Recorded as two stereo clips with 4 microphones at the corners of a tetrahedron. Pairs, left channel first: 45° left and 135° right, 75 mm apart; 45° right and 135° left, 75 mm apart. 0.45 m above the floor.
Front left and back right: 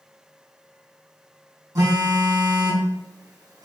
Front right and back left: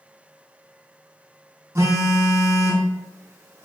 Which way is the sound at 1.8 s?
175° right.